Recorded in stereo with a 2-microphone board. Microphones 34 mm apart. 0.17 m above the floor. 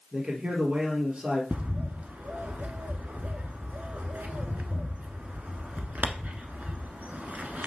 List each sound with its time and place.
0.1 s a man speaking: 30° right (ahead or behind), 3 m
1.5 s a bird: 45° right (ahead or behind), 1.0 m